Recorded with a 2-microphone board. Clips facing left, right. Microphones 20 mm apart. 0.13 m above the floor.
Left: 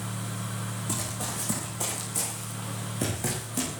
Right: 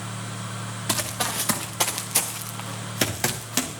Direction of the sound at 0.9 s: 80° right.